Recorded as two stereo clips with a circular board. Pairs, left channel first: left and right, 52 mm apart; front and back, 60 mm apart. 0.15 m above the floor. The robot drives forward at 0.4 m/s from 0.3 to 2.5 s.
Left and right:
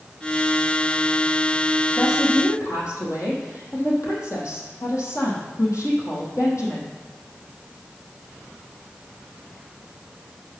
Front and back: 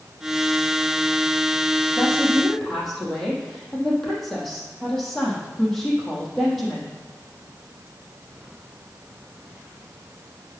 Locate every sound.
2.0 s a woman speaking: 80° left, 4.5 m